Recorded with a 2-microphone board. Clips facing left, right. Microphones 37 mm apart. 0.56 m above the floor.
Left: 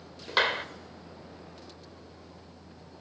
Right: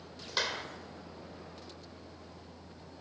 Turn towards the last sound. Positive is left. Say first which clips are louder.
# left 8 dB
turn(degrees=40)  # may be behind; listen again after turning